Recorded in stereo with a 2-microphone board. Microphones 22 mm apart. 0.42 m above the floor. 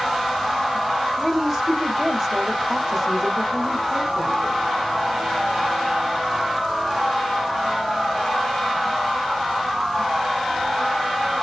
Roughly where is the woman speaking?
Right.